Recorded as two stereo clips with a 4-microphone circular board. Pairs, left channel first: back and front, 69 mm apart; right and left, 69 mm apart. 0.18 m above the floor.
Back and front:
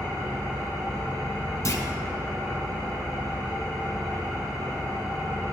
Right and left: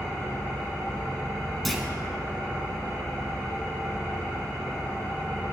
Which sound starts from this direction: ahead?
An engine running, at 0.0 s.